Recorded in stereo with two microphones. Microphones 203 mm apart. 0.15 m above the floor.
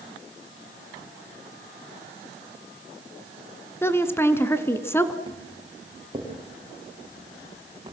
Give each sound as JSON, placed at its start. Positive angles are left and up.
{"t": 3.8, "sound": "a woman speaking", "side_deg": 10, "distance_m": 1.7}
{"t": 5.3, "sound": "footsteps", "side_deg": -20, "distance_m": 8.0}